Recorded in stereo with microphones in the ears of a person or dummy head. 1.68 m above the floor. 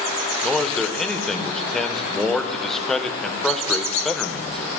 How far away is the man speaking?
About 0.8 m.